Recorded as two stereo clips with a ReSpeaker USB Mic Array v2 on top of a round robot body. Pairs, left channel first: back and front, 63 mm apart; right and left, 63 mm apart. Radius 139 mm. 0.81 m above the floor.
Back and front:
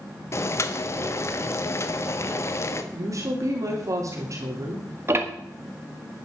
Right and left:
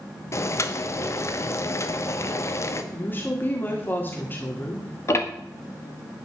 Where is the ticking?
45° right, 1.9 m.